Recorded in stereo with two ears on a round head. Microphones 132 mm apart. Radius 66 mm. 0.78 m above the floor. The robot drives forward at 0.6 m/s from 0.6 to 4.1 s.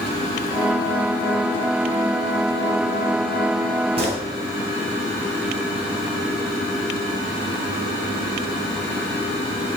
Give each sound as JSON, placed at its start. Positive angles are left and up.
{"t": 4.0, "sound": "a gunshot", "side_deg": -40, "distance_m": 5.0}